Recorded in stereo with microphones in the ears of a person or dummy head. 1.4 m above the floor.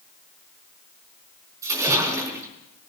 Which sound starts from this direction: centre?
A splash, at 1.6 s.